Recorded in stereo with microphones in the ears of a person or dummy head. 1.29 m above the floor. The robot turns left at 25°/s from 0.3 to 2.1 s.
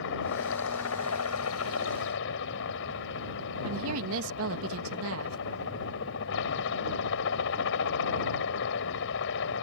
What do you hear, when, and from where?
0.0 s a helicopter: 110° left; by 9.6 s 65° left
3.6 s a woman speaking: 70° right (ahead or behind)